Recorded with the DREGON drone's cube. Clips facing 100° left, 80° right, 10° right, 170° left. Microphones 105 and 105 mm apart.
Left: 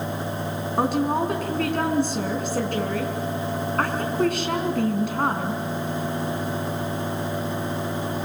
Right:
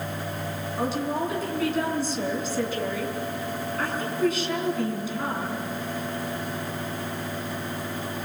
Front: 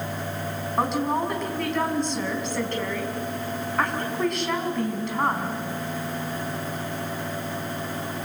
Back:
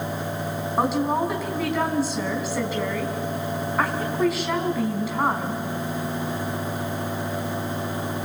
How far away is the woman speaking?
About 5 m.